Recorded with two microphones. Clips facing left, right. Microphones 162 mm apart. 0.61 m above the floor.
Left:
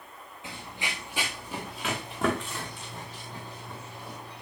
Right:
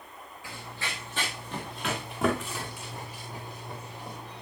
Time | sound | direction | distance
0.4 | running footsteps | 20° left (ahead or behind) | 2.5 m